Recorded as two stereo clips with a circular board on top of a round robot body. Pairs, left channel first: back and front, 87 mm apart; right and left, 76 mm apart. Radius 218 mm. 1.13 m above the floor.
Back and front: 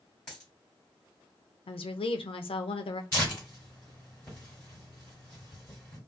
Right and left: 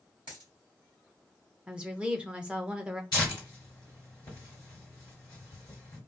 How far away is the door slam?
No door slam in this recording.